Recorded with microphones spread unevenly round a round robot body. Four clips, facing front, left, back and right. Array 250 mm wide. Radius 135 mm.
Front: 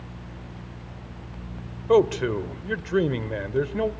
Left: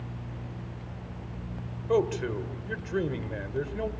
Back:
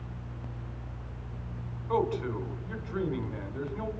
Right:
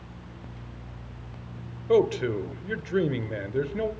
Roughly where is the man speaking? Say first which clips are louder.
Right 4 dB, front 10 dB; ahead.